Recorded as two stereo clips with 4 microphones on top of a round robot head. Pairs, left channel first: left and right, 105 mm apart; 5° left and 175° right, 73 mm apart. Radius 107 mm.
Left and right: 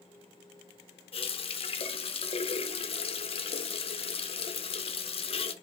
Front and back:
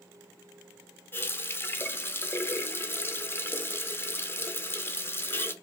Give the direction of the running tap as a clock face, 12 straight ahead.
10 o'clock.